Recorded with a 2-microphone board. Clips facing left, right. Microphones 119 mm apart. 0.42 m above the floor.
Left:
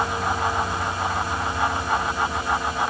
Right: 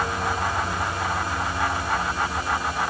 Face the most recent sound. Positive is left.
No sound to turn to.